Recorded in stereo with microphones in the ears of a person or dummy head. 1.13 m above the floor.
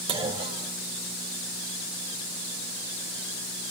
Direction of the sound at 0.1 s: 30° right (ahead or behind).